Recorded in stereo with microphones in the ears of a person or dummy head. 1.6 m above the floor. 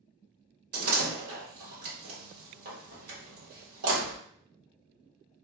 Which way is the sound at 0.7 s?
50° right (ahead or behind).